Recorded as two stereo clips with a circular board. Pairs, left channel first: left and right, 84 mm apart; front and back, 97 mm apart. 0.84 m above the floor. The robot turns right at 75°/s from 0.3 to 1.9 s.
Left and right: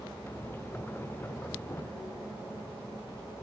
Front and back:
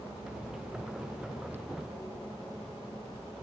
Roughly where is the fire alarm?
I don't hear a fire alarm.